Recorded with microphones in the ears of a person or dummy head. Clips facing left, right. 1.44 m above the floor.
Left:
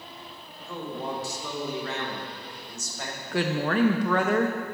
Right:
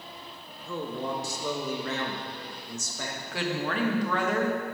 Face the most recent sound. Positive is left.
turn(degrees=45)  # may be behind; listen again after turning